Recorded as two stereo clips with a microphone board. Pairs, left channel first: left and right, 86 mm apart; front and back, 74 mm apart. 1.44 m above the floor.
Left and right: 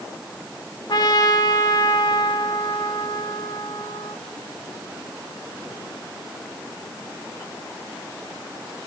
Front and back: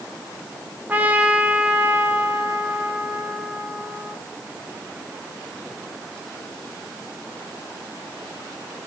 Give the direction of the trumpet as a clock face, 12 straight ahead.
8 o'clock.